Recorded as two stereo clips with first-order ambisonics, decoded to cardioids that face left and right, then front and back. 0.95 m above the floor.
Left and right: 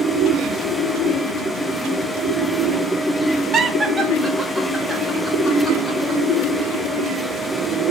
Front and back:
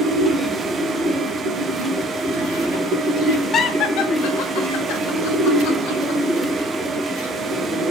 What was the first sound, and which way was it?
Laughter, 45° right.